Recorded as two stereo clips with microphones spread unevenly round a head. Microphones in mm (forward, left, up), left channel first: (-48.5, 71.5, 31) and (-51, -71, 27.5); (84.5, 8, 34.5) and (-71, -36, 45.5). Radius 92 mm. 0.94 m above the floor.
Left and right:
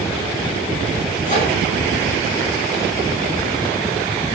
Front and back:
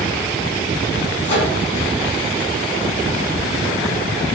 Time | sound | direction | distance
1.2 | a microwave | 35° left | 6 m